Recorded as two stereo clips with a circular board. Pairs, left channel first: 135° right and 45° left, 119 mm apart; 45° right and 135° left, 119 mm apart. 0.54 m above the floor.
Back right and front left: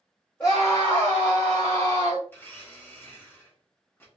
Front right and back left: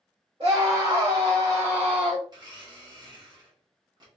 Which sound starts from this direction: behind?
A blender, at 2.3 s.